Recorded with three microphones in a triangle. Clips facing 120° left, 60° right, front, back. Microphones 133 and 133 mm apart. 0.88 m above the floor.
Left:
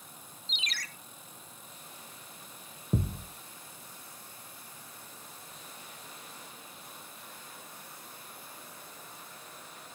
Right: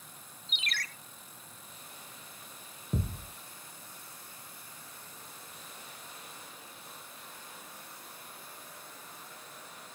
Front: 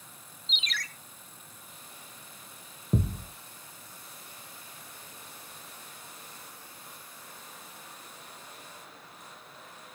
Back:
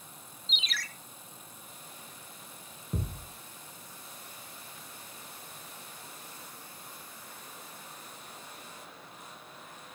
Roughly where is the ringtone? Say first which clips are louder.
Right 3 dB, front 1 dB; right.